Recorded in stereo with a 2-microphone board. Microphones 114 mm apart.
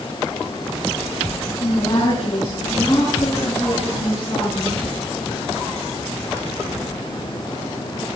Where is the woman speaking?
40° left (ahead or behind), 7.5 m; by 4.8 s 30° left (ahead or behind), 11 m.